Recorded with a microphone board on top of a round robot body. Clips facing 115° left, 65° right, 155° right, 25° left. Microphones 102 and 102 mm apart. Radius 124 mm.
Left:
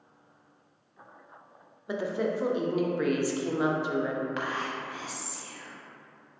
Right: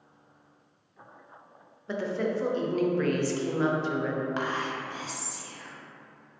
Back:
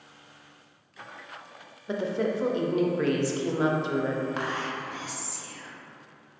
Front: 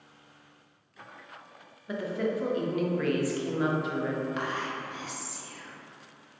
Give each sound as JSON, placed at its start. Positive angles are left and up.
{"t": 1.9, "sound": "a woman speaking", "azimuth_deg": 180, "distance_m": 0.6}
{"t": 4.4, "sound": "whispering", "azimuth_deg": -120, "distance_m": 1.0}